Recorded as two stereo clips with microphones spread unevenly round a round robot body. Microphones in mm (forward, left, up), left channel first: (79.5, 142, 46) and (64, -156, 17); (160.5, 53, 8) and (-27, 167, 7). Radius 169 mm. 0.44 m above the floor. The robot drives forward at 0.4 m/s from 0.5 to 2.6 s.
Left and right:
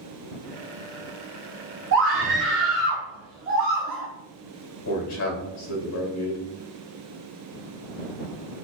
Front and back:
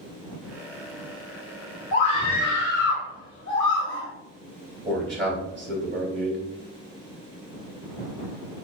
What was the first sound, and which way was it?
A scream, 75° right.